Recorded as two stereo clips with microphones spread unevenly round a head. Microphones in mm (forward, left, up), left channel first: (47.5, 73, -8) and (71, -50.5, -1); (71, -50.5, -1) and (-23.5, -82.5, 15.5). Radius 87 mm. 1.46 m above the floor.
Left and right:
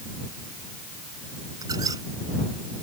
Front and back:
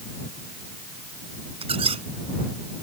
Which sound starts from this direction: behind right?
A squeak, at 1.6 s.